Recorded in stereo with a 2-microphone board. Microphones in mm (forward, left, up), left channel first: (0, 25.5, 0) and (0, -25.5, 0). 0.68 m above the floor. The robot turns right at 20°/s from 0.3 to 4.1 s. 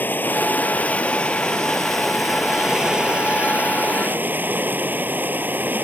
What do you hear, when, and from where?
0.0 s running water: 140° left; by 5.9 s 145° right